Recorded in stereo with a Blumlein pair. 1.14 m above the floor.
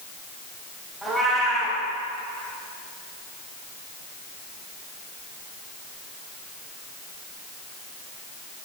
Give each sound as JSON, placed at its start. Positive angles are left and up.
{"t": 1.0, "sound": "a cat meowing", "azimuth_deg": 5, "distance_m": 3.5}